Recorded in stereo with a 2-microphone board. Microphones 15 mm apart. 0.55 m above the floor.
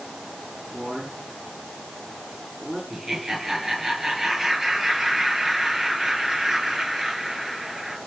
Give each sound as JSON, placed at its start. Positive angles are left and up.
{"t": 0.7, "sound": "a man speaking", "side_deg": -40, "distance_m": 6.5}
{"t": 2.9, "sound": "laughter", "side_deg": -20, "distance_m": 8.0}